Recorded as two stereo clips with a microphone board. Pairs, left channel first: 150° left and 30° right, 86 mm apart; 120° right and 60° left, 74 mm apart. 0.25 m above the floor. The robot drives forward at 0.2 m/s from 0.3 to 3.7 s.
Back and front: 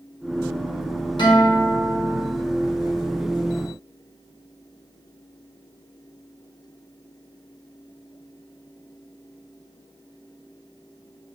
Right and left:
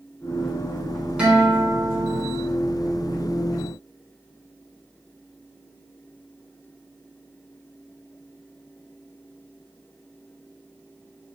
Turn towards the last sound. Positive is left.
turn(degrees=150)